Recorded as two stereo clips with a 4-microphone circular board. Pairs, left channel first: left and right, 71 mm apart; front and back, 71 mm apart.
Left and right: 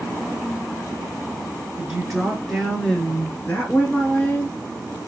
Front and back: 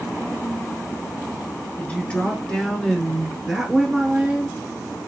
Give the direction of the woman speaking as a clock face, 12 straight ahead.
1 o'clock.